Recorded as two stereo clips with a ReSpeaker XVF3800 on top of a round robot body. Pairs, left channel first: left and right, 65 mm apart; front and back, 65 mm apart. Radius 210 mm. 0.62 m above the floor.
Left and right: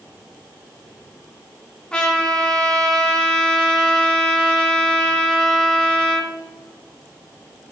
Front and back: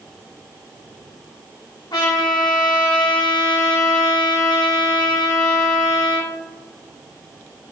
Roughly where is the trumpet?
Ahead.